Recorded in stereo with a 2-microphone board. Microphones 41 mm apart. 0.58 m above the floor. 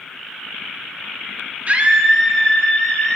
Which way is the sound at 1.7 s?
35° right (ahead or behind).